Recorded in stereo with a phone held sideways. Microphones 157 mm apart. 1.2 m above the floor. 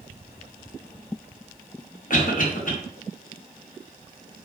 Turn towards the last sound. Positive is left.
turn(degrees=60)  # may be behind; listen again after turning